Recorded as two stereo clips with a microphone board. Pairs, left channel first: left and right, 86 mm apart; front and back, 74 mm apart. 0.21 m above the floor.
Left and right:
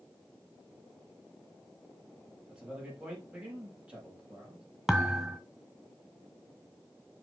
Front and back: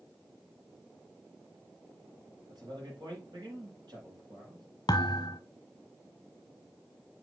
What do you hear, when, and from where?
2.5 s a man speaking: 165° right, 6 m
4.9 s a thud: straight ahead, 1.1 m